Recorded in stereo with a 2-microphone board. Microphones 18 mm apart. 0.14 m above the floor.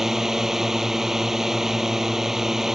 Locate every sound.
0.0 s a drone: 25° right (ahead or behind)